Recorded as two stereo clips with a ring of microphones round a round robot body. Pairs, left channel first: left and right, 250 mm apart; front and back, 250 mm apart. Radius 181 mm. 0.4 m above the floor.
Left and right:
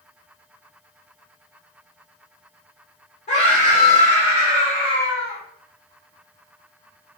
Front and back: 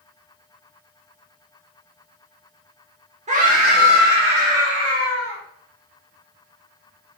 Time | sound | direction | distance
3.3 | a scream | 135° left | 0.9 m